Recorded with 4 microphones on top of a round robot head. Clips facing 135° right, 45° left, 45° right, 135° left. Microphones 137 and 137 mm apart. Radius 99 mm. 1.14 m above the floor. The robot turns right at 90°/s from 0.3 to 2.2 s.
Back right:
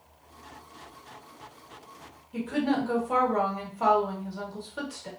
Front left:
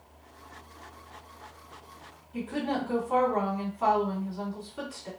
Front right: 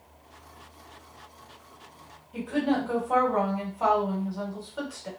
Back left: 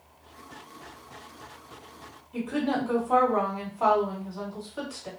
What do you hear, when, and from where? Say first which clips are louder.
2.3 s a woman speaking: back right 4 dB, front right 1 dB; 135° right, 1.8 m